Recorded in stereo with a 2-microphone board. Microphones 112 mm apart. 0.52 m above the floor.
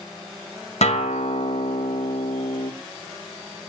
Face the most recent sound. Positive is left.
turn(degrees=70)  # may be behind; listen again after turning